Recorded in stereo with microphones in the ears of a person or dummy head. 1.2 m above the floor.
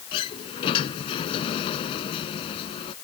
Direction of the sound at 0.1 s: 30° left (ahead or behind).